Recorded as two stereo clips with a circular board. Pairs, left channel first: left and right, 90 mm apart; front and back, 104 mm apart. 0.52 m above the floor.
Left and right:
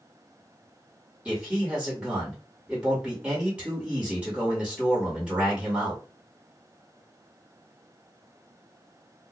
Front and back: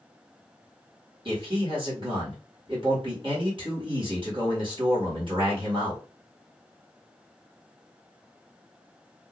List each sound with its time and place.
1.2 s a man speaking: 170° right, 1.9 m